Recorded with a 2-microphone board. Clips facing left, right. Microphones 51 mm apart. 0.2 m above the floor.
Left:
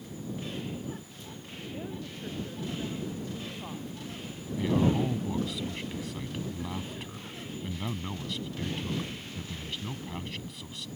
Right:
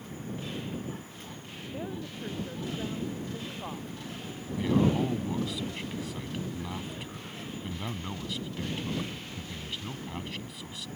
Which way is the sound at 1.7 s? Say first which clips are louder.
Right 3 dB; 15° right (ahead or behind).